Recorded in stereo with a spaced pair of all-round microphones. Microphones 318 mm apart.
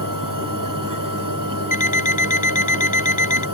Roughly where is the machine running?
Right.